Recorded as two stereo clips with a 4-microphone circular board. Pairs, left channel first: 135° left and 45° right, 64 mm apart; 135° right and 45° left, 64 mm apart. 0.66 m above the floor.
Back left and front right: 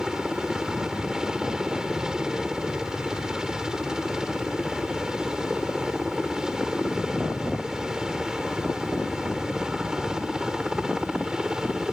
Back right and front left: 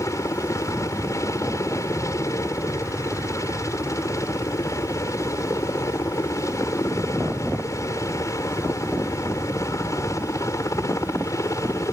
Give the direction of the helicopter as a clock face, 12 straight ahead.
4 o'clock.